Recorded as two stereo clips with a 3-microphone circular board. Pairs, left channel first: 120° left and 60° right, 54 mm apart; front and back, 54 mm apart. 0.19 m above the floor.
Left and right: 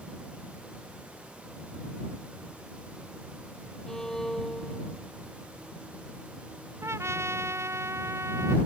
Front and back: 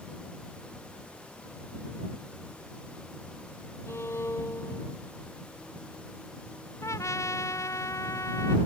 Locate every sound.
3.9 s a violin: 40° left
6.8 s a trumpet: 25° right